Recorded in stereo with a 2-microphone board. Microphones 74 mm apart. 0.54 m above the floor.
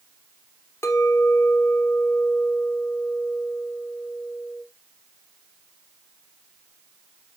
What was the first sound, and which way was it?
A clink, 40° left (ahead or behind).